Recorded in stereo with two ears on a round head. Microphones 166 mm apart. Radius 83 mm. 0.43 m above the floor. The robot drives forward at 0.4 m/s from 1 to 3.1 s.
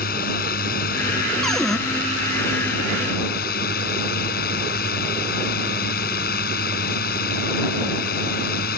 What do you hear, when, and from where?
0.0 s a drone: 55° left (ahead or behind)
1.4 s a cupboard door: centre (ahead or behind)